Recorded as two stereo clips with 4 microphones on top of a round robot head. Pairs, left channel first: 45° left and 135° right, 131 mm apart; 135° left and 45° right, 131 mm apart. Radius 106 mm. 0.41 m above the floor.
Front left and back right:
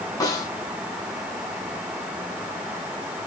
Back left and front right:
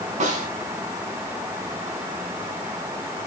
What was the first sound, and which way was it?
A snare drum, 15° right.